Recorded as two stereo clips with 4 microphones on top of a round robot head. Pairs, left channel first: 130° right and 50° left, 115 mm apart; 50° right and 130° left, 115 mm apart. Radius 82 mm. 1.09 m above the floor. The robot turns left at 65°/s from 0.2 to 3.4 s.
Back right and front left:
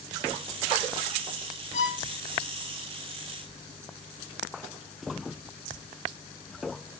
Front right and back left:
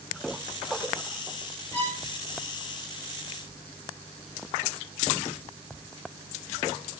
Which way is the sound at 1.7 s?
120° right.